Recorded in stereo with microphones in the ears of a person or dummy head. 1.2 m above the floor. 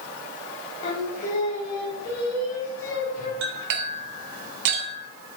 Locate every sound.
0.8 s singing: 45° left (ahead or behind), 4 m
3.4 s a clink: 70° right (ahead or behind), 2.5 m